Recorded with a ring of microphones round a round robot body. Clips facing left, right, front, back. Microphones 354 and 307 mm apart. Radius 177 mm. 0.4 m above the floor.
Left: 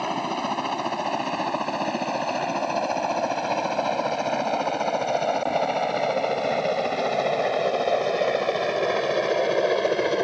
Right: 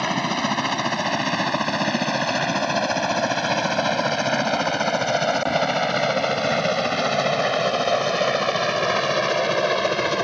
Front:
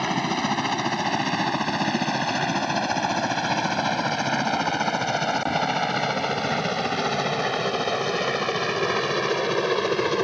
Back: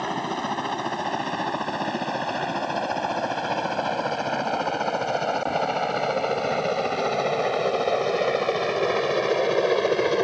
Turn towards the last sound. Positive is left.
turn(degrees=-65)